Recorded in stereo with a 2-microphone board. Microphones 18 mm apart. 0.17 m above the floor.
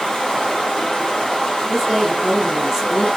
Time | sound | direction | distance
0.0 | running water | 55° left (ahead or behind) | 1.9 m
1.7 | a woman speaking | 30° right (ahead or behind) | 1.1 m